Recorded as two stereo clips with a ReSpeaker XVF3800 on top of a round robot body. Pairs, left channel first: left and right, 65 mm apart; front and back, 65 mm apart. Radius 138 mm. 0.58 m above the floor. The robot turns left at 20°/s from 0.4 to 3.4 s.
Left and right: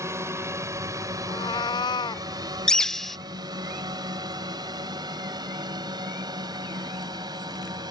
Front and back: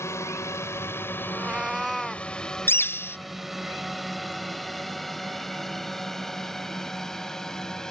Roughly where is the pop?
No pop in this recording.